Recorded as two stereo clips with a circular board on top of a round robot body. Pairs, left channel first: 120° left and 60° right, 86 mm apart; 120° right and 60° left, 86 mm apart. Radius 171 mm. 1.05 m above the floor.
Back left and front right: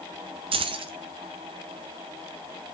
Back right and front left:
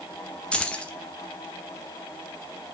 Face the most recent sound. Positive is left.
turn(degrees=-40)